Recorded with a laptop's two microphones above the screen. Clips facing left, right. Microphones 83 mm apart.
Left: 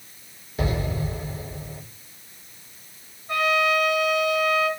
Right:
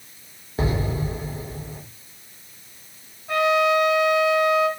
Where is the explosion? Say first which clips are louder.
Right 2 dB; 30° right (ahead or behind), 2 m.